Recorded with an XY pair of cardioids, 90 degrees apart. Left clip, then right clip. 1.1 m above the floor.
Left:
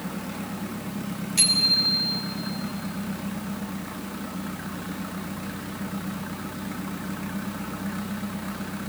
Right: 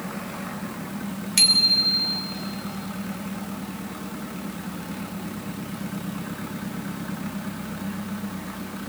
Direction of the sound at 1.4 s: 65° right.